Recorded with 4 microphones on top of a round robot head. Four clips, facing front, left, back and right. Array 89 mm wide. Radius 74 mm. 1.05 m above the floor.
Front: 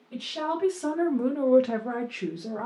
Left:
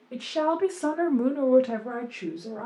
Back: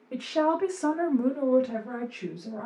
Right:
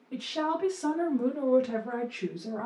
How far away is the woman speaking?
About 1.0 m.